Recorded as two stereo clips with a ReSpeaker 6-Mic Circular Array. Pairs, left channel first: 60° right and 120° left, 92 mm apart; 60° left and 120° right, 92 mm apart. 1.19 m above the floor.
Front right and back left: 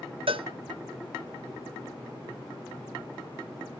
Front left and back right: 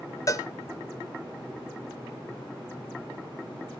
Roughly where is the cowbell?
Behind left.